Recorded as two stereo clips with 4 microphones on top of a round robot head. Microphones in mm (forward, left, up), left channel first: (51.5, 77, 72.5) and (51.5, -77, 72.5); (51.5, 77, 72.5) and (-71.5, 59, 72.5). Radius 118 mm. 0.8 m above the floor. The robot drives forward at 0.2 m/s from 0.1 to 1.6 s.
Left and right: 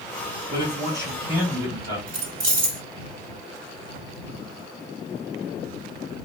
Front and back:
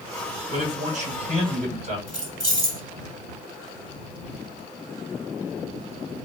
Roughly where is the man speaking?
Behind.